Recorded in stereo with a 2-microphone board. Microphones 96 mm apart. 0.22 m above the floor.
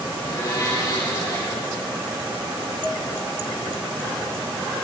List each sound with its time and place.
0.1 s a blender: 40° left (ahead or behind), 6.5 m
2.8 s dishes clattering: 30° right (ahead or behind), 1.5 m